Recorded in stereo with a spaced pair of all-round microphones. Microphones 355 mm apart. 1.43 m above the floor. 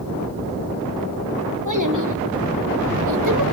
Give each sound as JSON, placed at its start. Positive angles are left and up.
{"t": 1.6, "sound": "a child speaking", "side_deg": -60, "distance_m": 3.0}